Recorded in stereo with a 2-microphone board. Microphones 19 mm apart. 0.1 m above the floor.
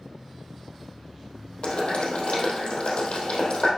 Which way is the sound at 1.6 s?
65° left (ahead or behind).